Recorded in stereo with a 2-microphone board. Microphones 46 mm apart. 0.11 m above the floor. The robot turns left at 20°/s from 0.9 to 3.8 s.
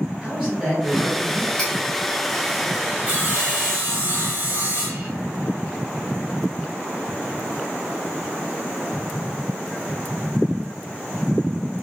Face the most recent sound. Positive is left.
turn(degrees=-45)  # may be behind; listen again after turning